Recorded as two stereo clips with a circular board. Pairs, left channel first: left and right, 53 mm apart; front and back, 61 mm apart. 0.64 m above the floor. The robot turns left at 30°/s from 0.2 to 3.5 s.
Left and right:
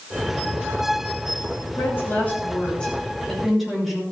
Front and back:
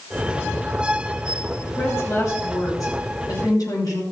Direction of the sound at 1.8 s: 50° left.